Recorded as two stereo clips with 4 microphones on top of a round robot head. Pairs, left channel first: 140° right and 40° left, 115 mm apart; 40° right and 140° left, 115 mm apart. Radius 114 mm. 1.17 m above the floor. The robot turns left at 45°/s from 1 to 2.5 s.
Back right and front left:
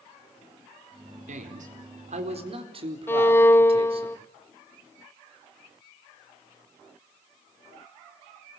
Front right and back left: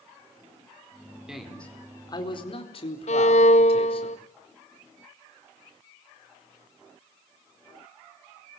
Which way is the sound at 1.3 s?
55° left.